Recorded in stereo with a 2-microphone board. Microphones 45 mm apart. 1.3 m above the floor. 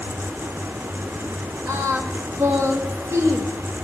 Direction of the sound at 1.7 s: 70° right (ahead or behind).